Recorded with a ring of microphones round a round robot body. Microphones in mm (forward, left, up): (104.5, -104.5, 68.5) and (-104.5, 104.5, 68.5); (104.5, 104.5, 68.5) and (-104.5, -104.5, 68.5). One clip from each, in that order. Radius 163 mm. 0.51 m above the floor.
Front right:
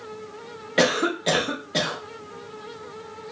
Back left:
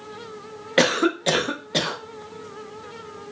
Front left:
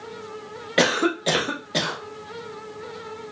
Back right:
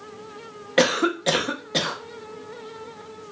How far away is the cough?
About 0.8 m.